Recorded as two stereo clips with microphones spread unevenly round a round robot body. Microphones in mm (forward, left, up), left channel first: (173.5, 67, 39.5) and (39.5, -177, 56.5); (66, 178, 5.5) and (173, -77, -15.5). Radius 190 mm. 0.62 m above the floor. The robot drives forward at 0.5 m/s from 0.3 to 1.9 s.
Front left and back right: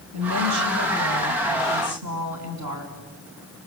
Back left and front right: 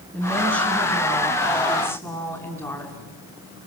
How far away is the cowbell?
No cowbell in this recording.